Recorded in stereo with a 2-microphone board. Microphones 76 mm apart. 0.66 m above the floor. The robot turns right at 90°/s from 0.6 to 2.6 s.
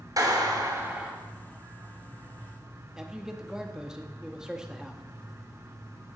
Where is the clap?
55° right, 2.5 m; by 1.1 s 5° right, 2.5 m.